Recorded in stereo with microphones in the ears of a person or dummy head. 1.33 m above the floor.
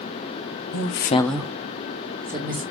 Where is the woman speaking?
75° left (ahead or behind), 0.8 m; by 2.6 s 40° right (ahead or behind), 2.5 m.